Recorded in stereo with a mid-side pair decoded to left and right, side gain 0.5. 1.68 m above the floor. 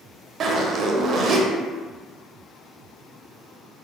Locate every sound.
0.4 s a zipper: 55° right, 0.6 m